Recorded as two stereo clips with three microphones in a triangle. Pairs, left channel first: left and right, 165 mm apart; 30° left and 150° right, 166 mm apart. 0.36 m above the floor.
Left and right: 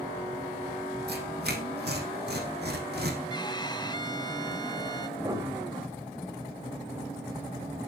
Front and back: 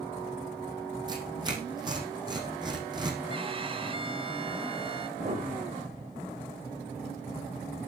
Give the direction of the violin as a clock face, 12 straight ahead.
7 o'clock.